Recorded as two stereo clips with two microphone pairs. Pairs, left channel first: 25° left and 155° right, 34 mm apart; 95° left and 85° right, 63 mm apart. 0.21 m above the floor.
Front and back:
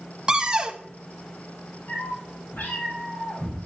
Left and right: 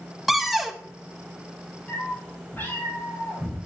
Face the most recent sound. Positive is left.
turn(degrees=35)